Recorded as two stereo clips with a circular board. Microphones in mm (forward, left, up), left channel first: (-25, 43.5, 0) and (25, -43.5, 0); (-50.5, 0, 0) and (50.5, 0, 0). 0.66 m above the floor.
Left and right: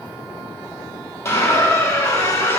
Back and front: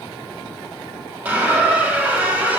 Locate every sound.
1.2 s a squeak: 70° left, 0.6 m